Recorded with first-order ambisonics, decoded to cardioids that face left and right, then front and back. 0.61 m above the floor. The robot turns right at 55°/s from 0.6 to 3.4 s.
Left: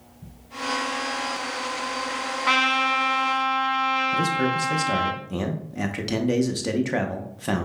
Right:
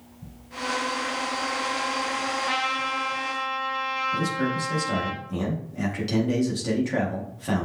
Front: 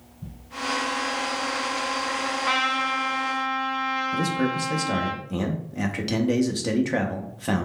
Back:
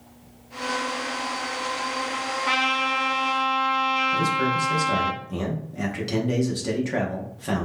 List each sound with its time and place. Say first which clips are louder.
2.5 s a trumpet: left 10 dB, back 2 dB; 90° left, 0.8 m; by 5.1 s 140° left, 0.8 m
4.1 s a man speaking: left 4 dB, back 3 dB; 60° left, 0.6 m